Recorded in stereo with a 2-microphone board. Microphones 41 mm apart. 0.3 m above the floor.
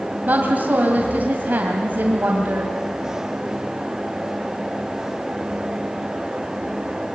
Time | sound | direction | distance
0.3 | a woman speaking | 40° right (ahead or behind) | 2 m